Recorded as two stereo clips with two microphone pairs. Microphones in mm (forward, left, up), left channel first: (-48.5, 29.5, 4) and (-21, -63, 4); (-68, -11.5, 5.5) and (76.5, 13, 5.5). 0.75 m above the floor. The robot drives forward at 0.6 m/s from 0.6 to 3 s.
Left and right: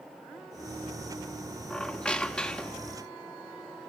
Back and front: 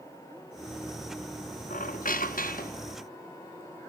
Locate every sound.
1.7 s a squeak: 170° right, 0.8 m; by 3.0 s 175° right, 1.6 m